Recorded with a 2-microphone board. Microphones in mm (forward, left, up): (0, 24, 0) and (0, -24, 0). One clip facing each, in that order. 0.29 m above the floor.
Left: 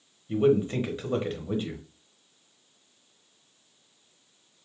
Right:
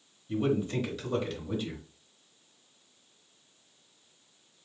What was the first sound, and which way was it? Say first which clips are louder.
A man speaking: left 6 dB; 30° left (ahead or behind).